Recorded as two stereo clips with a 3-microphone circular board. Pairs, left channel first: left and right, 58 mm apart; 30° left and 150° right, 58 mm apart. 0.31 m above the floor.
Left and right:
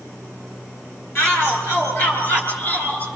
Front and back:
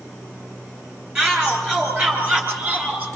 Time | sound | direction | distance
1.1 | a shout | 130° left | 7 m